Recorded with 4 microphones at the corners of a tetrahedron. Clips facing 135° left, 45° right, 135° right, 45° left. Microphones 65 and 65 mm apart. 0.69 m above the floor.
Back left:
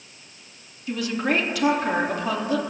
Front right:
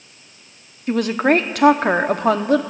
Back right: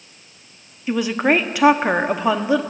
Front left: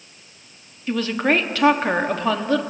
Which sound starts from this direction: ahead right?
A woman speaking, at 0.9 s.